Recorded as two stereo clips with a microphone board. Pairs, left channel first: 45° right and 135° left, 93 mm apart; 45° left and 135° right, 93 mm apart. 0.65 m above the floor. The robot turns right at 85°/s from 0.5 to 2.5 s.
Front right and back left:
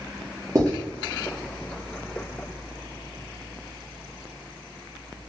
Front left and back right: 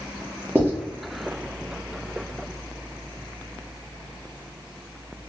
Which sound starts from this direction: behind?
Writing, at 0.6 s.